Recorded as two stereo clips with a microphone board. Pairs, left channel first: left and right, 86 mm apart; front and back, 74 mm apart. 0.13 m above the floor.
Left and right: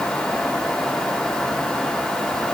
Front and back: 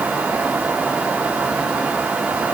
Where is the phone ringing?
I don't hear a phone ringing.